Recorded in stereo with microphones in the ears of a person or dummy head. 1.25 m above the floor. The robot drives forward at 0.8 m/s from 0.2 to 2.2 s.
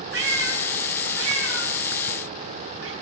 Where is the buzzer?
I don't hear a buzzer.